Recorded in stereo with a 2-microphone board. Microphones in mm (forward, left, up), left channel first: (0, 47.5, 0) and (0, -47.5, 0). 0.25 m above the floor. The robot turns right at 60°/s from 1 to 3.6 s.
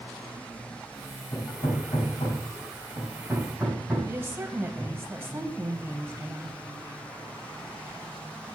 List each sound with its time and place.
1.3 s hammering: 45° left (ahead or behind), 6 m; by 5.0 s centre (ahead or behind), 6 m
4.1 s a woman speaking: 25° right (ahead or behind), 1.0 m